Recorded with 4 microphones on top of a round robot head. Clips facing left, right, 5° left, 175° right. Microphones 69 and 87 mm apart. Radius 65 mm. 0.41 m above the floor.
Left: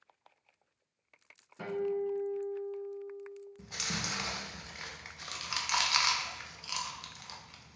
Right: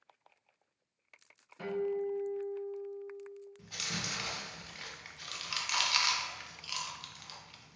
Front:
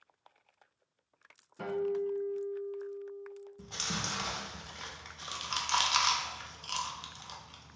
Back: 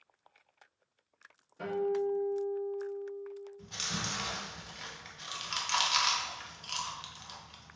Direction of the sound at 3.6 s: 35° left.